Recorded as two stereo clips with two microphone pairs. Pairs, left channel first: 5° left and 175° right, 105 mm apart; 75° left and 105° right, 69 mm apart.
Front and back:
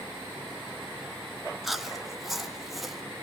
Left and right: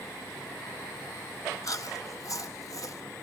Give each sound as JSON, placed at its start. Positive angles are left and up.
{"t": 1.6, "sound": "chewing", "azimuth_deg": 95, "distance_m": 0.8}